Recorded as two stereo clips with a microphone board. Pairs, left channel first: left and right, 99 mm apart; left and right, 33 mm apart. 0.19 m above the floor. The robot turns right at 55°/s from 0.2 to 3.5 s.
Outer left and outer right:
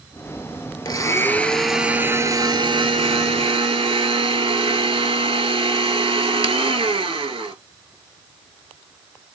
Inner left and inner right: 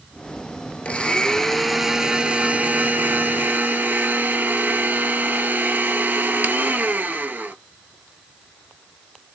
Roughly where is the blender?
Behind left.